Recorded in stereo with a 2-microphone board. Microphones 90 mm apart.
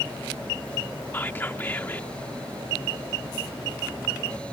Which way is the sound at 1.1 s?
20° left (ahead or behind).